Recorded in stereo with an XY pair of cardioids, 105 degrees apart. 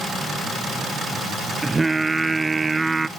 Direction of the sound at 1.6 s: 20° right.